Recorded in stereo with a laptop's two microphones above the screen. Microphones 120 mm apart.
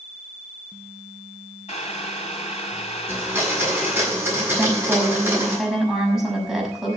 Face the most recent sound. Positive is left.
turn(degrees=-5)  # may be behind; listen again after turning